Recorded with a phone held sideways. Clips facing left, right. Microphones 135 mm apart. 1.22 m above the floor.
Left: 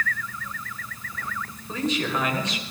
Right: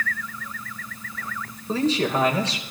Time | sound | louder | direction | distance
1.7 | a man speaking | right 5 dB | 35° right (ahead or behind) | 5 m